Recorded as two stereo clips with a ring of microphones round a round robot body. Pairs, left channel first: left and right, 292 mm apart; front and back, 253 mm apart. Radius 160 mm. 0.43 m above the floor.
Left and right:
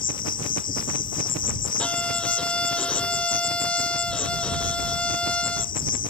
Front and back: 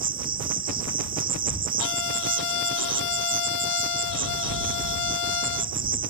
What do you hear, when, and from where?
0.0 s an insect: 140° left
1.8 s a violin: 5° left